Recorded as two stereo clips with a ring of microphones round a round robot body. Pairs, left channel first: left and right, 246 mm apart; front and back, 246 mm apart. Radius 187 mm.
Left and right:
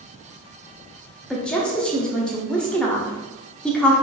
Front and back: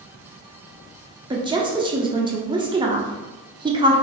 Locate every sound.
1.3 s a woman speaking: 170° left, 0.8 m